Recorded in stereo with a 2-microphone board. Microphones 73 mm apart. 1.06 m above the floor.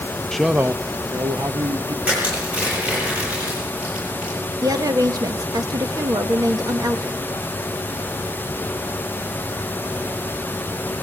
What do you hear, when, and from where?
0.3 s a man speaking: 5° left (ahead or behind), 0.7 m; by 1.9 s 75° right (ahead or behind), 2.0 m
2.0 s crushing: 20° right (ahead or behind), 9.5 m
4.6 s a woman speaking: 60° right (ahead or behind), 1.6 m